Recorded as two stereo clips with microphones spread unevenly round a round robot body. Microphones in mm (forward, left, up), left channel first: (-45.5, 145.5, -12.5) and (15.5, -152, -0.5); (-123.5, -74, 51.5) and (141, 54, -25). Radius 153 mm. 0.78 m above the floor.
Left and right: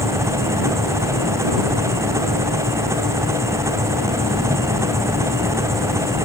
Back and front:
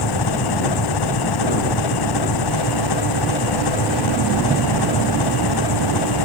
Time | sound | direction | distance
0.0 | an engine running | 160° right | ?